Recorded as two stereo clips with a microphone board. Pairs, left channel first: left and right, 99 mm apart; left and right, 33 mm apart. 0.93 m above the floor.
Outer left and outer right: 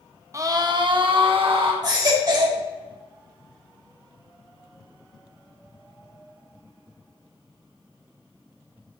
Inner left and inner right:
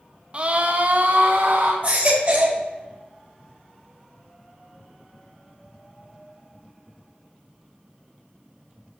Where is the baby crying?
45° right (ahead or behind), 4.5 m.